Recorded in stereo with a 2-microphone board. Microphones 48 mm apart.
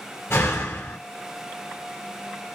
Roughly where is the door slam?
Left.